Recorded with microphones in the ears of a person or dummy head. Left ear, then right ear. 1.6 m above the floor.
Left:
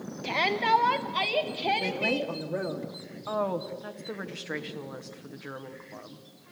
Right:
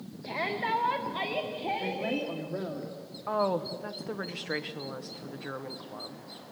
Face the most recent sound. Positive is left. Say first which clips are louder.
# right 1 dB
turn(degrees=5)  # may be behind; listen again after turning